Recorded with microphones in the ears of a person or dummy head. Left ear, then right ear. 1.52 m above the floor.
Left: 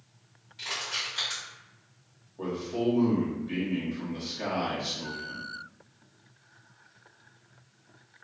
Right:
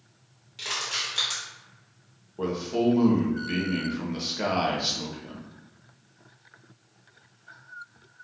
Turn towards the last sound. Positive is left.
turn(degrees=-70)  # may be behind; listen again after turning